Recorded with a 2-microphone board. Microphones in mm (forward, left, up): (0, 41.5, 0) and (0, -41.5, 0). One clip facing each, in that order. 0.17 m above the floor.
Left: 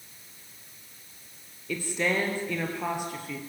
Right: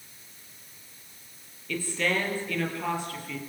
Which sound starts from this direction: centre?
A woman speaking, at 1.7 s.